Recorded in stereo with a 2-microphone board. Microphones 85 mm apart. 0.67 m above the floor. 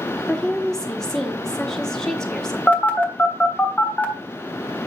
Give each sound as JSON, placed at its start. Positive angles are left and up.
{"t": 0.3, "sound": "a woman speaking", "side_deg": 5, "distance_m": 1.0}
{"t": 2.7, "sound": "a phone buzzing", "side_deg": 20, "distance_m": 1.3}